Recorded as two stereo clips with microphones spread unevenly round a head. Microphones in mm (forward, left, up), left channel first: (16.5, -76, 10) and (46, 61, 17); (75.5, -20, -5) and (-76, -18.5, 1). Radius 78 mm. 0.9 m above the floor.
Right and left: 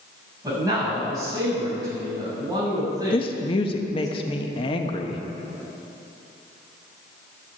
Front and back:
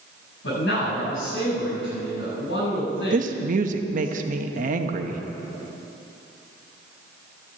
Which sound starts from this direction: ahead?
A man speaking, at 0.4 s.